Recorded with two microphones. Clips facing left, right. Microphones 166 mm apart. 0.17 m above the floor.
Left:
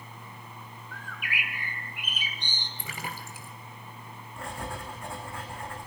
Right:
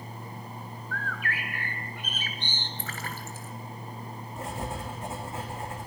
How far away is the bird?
About 2 m.